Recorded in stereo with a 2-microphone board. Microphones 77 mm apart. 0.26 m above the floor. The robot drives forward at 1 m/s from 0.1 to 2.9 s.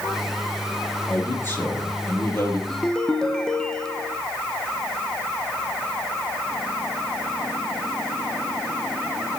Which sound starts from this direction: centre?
A ringtone, at 2.7 s.